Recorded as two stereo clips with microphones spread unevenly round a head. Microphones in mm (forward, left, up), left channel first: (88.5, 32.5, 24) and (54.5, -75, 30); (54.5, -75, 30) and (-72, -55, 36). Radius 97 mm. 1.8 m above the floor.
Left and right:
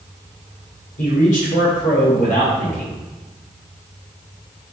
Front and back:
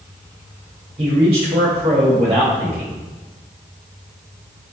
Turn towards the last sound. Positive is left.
turn(degrees=110)